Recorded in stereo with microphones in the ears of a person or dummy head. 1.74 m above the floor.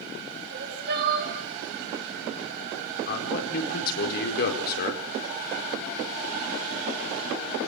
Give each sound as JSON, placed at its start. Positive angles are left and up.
{"t": 0.5, "sound": "crying", "side_deg": -45, "distance_m": 6.5}
{"t": 3.1, "sound": "a man speaking", "side_deg": 55, "distance_m": 4.5}